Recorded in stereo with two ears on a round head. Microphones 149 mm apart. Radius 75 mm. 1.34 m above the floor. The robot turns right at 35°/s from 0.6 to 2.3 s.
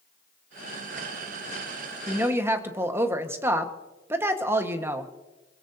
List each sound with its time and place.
2.1 s a woman speaking: 5° right (ahead or behind), 1.4 m; by 5.1 s 15° right (ahead or behind), 1.4 m